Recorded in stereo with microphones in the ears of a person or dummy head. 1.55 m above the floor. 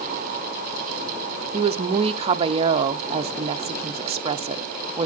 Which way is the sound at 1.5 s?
30° right (ahead or behind).